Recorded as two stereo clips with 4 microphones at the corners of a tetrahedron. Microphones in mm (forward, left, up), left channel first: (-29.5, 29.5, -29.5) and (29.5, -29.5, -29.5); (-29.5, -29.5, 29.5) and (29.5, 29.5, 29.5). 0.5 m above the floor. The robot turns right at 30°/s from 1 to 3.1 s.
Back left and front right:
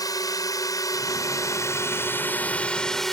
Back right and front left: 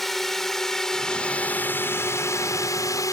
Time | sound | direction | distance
0.0 | a drone | 140° left | ?